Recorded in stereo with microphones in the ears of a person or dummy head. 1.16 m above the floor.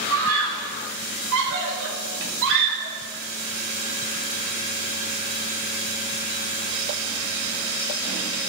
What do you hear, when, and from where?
0.1 s a scream: 75° right (ahead or behind), 5.5 m; by 3.0 s 55° right (ahead or behind), 5 m